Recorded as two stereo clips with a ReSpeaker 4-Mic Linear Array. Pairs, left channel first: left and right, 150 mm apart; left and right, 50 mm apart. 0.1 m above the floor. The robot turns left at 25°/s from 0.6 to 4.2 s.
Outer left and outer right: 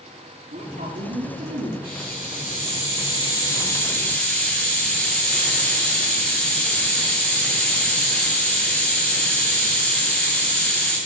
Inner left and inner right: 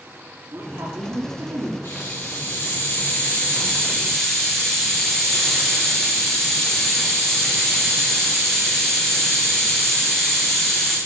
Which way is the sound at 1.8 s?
65° left.